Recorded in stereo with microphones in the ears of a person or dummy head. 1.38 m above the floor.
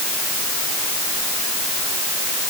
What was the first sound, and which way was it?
Only background noise.